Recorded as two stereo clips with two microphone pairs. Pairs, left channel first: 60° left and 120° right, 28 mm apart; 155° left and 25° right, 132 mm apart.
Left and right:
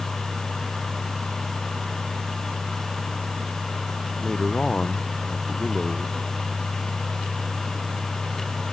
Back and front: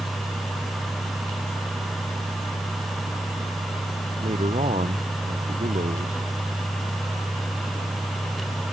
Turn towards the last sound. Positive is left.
turn(degrees=-5)